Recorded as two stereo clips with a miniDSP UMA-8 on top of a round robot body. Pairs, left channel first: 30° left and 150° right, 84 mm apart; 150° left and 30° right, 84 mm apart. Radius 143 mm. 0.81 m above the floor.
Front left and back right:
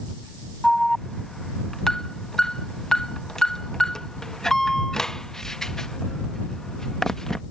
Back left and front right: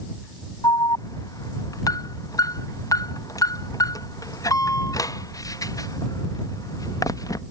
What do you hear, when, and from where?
0.6 s an alarm: 115° left